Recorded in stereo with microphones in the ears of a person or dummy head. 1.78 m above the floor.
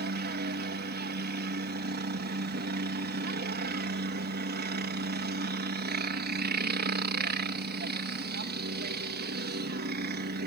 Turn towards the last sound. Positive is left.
turn(degrees=-45)  # may be behind; listen again after turning